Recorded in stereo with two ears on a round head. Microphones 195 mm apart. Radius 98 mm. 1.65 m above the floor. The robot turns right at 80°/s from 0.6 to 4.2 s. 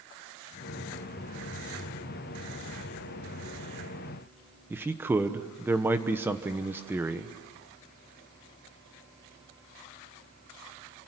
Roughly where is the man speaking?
Centre.